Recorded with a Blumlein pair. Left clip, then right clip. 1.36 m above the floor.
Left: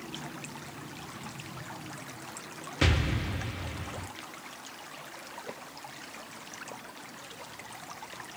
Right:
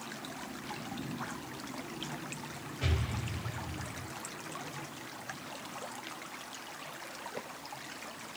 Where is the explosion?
50° left, 1.6 m.